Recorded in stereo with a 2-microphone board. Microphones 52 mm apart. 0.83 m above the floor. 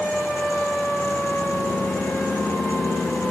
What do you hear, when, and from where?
Only background noise.